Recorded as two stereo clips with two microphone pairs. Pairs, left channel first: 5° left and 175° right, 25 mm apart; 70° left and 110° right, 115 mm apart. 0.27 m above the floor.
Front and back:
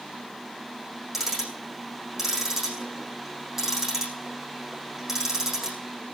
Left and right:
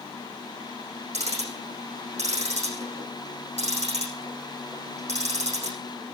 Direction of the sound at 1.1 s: 95° right.